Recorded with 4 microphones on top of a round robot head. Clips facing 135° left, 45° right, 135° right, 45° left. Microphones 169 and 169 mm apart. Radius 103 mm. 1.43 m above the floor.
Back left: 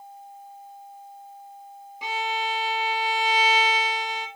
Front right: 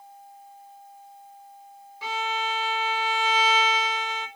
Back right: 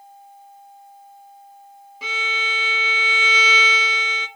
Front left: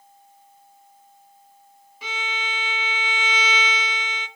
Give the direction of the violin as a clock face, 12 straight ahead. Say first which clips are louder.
Back left 1 dB, back right 2 dB; 5 o'clock.